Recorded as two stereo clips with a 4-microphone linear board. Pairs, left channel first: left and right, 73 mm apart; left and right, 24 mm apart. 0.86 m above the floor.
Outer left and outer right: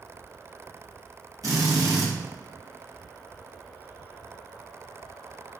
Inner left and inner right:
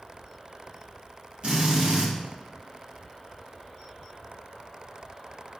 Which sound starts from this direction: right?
A drill, at 1.4 s.